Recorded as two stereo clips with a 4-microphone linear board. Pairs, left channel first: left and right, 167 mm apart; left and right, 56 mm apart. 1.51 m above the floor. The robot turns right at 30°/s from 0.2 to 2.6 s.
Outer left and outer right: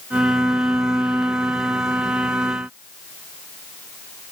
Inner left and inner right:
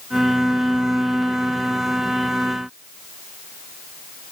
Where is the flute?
I don't hear a flute.